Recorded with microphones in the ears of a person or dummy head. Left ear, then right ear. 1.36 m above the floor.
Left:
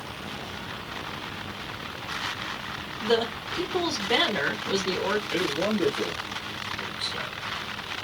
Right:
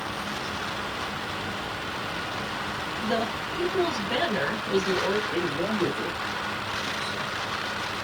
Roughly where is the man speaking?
Left.